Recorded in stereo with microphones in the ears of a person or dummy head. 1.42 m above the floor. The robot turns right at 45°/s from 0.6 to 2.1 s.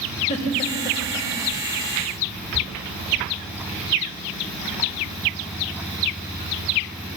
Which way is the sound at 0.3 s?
35° left (ahead or behind).